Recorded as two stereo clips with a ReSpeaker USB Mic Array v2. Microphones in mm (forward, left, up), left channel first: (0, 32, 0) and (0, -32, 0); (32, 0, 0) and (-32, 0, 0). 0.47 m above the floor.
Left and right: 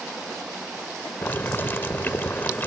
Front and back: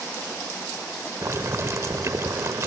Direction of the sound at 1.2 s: 145° left.